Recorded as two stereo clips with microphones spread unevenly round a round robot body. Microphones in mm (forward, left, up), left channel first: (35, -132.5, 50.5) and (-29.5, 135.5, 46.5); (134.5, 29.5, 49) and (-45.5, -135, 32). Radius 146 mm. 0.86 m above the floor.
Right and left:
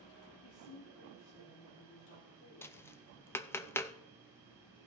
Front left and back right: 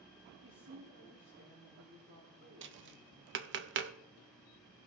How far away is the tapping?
About 0.5 m.